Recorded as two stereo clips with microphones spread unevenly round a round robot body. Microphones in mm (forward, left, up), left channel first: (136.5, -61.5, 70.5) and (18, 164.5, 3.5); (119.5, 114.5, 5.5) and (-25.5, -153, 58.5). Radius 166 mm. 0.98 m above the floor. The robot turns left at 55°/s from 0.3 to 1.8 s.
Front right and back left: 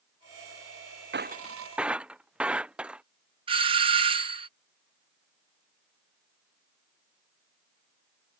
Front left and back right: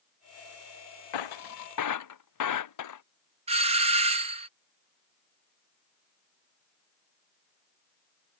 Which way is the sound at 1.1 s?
65° left.